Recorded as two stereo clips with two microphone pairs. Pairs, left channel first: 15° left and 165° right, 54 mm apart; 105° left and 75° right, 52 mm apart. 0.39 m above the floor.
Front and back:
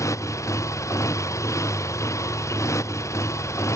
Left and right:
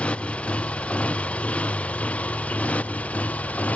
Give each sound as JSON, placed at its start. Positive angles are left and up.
{"t": 0.0, "sound": "a motorcycle", "azimuth_deg": 40}